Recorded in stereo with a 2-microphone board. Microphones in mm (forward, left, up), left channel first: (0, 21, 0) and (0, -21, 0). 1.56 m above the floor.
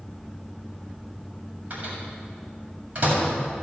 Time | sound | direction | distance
1.7 | a microwave | 35° right (ahead or behind) | 7 m